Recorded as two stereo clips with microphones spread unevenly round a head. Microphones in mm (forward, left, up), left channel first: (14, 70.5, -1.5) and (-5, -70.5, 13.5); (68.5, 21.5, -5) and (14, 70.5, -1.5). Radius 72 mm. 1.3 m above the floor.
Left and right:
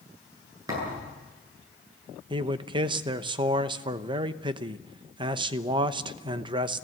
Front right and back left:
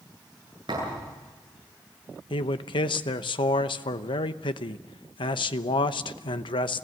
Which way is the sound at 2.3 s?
40° right.